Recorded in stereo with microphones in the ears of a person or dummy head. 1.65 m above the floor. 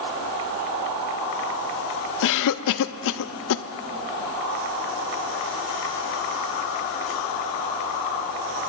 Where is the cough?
65° left (ahead or behind), 0.5 m.